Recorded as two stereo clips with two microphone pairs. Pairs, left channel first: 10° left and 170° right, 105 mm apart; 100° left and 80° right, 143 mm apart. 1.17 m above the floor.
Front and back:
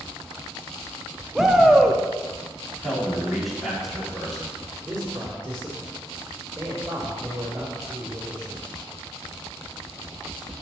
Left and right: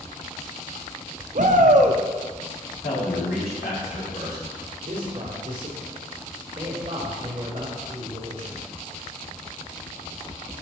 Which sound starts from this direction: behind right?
A man speaking, at 4.8 s.